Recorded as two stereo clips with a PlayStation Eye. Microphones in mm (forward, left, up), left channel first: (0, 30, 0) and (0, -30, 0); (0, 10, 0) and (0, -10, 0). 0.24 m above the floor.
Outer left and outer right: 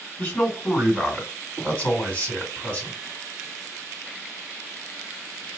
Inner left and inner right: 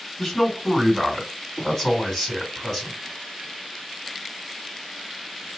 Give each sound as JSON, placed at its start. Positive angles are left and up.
{"t": 0.2, "sound": "a man speaking", "side_deg": 30, "distance_m": 2.0}